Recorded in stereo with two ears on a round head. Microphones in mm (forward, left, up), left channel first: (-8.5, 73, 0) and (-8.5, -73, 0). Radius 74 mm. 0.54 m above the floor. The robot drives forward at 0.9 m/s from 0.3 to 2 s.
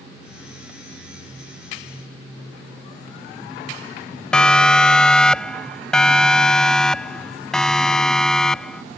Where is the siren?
5° left (ahead or behind).